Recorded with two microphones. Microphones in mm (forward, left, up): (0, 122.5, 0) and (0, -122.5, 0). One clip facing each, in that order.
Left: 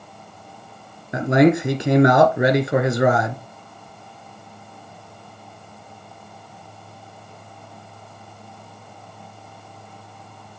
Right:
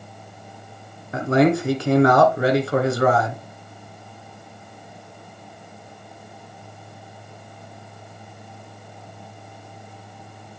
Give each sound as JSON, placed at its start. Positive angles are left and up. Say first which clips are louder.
{"t": 1.1, "sound": "a man speaking", "louder": "left 2 dB", "side_deg": 20, "distance_m": 1.2}